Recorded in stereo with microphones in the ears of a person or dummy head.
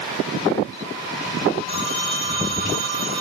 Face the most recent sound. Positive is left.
turn(degrees=-35)  # may be behind; listen again after turning